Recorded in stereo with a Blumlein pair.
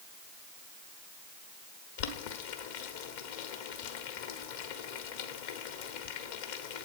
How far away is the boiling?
About 1.3 m.